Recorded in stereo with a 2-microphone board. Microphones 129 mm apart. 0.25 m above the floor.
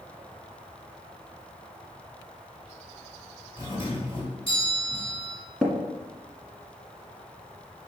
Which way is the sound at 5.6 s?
5° left (ahead or behind).